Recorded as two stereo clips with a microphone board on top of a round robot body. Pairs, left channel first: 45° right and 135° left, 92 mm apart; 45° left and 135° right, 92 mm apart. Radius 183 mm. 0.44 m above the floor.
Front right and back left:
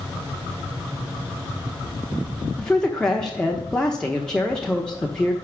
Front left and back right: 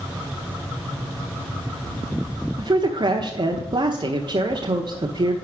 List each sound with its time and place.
2.6 s a man speaking: 125° right, 1.1 m